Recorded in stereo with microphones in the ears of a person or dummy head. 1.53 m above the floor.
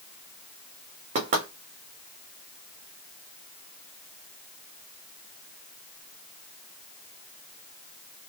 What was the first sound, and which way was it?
Knocking, 35° right (ahead or behind).